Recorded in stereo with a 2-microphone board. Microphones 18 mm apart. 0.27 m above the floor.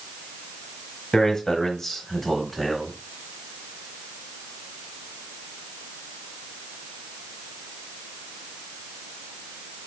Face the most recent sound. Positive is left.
turn(degrees=-5)  # may be behind; listen again after turning